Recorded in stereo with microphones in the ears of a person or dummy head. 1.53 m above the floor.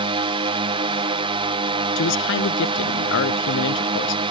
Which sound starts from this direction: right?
A drone, at 0.0 s.